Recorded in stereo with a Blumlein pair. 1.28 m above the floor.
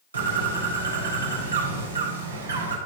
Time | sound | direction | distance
0.1 | a bird | 70° right | 3.5 m